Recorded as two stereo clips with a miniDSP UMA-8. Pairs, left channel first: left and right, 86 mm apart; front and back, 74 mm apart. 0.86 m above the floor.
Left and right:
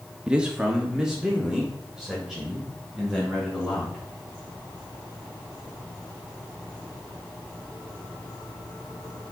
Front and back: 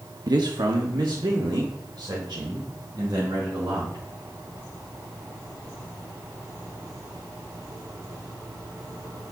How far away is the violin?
No violin in this recording.